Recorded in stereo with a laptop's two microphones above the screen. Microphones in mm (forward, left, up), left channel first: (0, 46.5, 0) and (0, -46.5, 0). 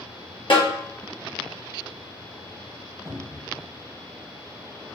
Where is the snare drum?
60° left (ahead or behind), 1.1 m.